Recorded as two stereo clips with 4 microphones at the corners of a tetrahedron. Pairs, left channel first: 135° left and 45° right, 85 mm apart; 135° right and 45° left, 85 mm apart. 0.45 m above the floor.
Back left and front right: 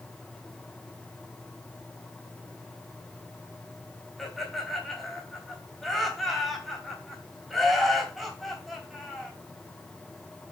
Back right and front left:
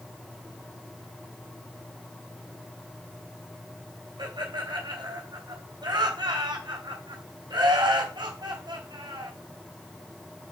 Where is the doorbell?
I don't hear a doorbell.